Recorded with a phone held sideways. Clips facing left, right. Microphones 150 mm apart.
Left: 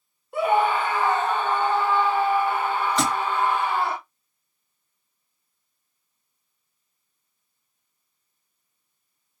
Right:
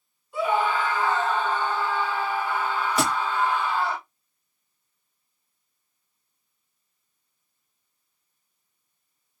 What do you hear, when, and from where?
0.3 s a scream: 60° left (ahead or behind), 1.3 m
3.0 s a thud: 10° right (ahead or behind), 0.8 m